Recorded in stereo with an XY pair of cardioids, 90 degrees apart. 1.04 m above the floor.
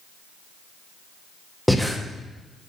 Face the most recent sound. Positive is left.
turn(degrees=5)